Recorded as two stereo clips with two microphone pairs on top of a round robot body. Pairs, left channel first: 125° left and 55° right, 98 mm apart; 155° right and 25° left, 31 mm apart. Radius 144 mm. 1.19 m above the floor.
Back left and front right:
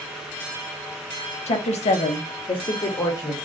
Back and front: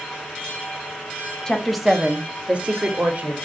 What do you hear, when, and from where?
1.5 s a woman speaking: 130° left, 0.7 m; by 3.4 s 65° left, 1.3 m